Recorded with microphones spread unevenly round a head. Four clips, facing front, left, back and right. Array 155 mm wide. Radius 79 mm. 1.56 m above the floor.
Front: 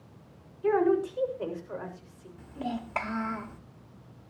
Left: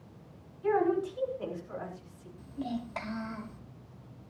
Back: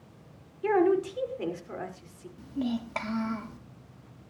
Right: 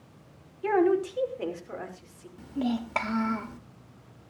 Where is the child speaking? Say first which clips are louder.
Right 7 dB, back 3 dB; 90° right, 1.5 m.